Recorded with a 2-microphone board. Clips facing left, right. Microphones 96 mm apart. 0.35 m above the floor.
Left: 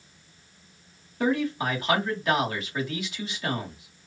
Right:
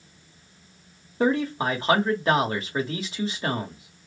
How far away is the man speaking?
About 1.2 m.